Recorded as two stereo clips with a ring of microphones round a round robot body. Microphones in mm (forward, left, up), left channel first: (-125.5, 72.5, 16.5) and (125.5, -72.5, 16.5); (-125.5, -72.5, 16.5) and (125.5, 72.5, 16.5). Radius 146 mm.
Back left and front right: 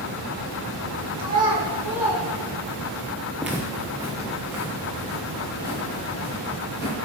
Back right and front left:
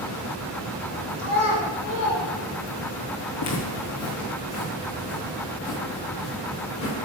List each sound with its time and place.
1.2 s a child speaking: 100° right, 2 m; by 3.0 s 130° right, 2 m
3.4 s footsteps: 115° right, 1.2 m; by 6.9 s 110° right, 5 m